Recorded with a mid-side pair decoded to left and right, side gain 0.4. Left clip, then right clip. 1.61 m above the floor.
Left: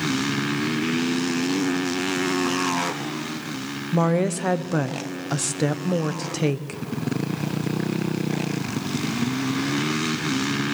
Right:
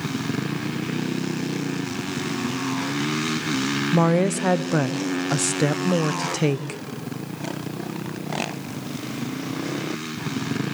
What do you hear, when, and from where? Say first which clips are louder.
3.9 s a woman speaking: even; 15° right, 1.0 m